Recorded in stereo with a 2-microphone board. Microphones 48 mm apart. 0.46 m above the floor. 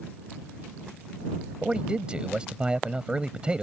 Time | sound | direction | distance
1.6 | a man speaking | 20° right (ahead or behind) | ?